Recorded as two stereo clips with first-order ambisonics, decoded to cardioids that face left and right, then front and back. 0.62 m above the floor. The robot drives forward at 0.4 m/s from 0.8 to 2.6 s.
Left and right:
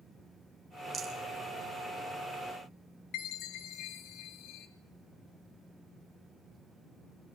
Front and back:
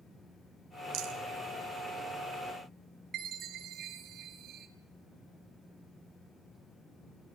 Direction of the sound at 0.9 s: 155° right.